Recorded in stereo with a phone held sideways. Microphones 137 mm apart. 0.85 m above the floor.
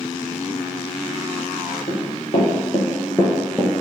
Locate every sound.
1.9 s running footsteps: 60° left (ahead or behind), 1.9 m; by 3.7 s 10° right (ahead or behind), 0.8 m